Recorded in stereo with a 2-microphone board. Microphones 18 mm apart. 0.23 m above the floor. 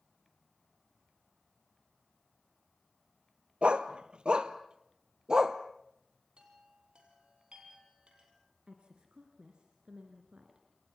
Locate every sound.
3.6 s a dog barking: 80° right, 1.2 m; by 5.6 s 35° right (ahead or behind), 1.7 m
6.4 s a chime: 75° right (ahead or behind), 7.5 m
8.7 s a woman speaking: 70° right (ahead or behind), 3 m